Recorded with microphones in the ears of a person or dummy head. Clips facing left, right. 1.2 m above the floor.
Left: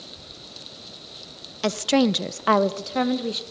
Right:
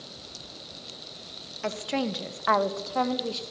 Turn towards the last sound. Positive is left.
turn(degrees=20)  # may be behind; listen again after turning